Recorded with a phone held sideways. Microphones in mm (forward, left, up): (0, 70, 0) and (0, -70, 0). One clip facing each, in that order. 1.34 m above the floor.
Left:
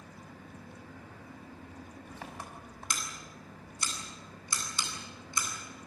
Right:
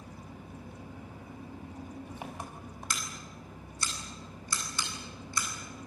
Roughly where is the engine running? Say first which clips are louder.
Right 3 dB; centre.